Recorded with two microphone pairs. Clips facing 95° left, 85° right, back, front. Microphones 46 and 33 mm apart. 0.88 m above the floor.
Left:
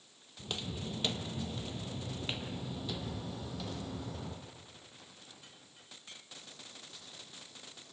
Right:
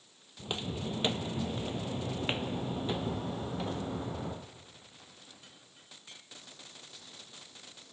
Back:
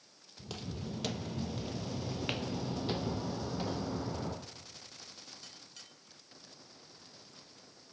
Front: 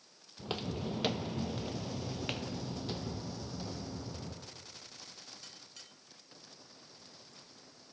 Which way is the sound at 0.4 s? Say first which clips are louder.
Right 4 dB, front 5 dB; 20° right.